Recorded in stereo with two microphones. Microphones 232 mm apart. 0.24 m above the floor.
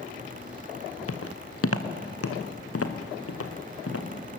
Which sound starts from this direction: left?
Footsteps, at 1.1 s.